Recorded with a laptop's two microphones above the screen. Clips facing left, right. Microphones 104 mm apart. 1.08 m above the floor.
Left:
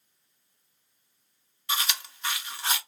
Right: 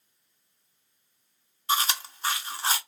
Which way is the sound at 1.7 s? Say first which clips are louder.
Right 5 dB; 35° right (ahead or behind).